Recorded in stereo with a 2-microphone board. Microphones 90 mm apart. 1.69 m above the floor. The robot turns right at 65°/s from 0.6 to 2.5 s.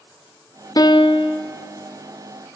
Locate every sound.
0.8 s a piano: 50° left, 0.6 m; by 1.4 s 90° left, 0.6 m